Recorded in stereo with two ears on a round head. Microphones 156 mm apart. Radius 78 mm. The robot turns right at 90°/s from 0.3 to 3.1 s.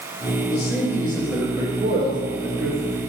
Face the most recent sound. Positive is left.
turn(degrees=-25)